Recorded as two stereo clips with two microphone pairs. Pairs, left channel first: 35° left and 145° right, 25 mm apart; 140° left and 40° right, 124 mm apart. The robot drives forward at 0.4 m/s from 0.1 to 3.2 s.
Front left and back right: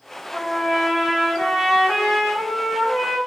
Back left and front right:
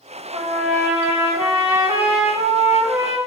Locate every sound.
0.3 s a trumpet: 60° right, 2.5 m; by 3.2 s 95° right, 2 m